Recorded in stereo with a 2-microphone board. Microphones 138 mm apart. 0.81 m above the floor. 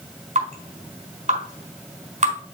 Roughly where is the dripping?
Right.